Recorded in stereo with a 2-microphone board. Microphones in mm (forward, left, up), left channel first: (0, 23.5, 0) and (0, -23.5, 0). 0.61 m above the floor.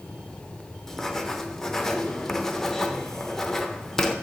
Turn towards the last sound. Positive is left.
turn(degrees=10)  # may be behind; listen again after turning